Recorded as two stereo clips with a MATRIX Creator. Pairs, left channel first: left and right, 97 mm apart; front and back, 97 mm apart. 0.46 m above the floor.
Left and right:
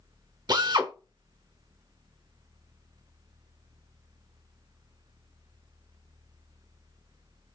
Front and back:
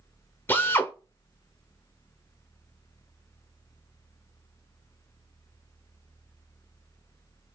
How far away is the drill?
About 0.7 m.